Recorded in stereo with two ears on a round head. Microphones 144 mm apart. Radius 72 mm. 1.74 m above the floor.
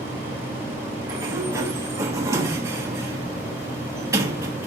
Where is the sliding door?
20° right (ahead or behind), 1.3 m.